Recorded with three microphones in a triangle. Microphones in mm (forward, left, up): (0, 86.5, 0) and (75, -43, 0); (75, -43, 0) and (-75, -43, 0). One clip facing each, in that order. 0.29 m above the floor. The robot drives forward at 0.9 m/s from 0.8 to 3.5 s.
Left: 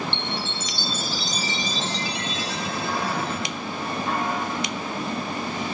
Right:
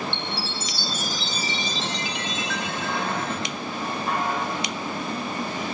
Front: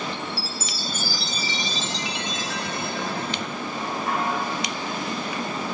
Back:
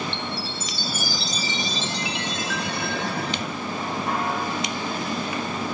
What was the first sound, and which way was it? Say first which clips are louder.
A chime: left 1 dB, back 1 dB; 85° left.